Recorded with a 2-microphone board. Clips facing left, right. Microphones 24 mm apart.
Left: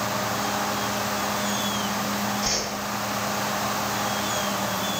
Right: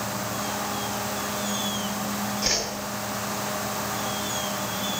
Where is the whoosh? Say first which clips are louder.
Right 1 dB; 40° right (ahead or behind), 3 m.